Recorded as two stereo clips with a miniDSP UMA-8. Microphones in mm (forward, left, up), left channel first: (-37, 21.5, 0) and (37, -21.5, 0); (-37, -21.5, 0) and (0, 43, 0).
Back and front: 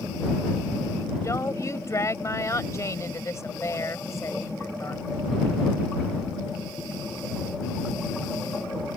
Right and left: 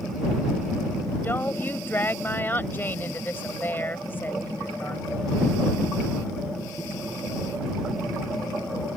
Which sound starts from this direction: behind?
A woman speaking, at 1.2 s.